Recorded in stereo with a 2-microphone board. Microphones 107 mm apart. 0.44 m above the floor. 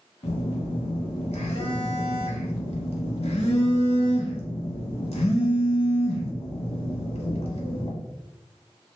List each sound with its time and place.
0.2 s a phone buzzing: 75° left (ahead or behind), 0.8 m